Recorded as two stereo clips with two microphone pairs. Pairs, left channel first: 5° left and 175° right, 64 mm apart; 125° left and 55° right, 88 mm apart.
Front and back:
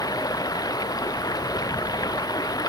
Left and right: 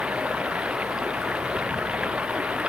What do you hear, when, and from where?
0.0 s running water: 20° left